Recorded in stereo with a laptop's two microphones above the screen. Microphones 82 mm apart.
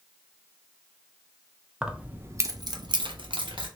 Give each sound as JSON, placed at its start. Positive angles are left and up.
{"t": 1.8, "sound": "keys jangling", "side_deg": -10, "distance_m": 0.6}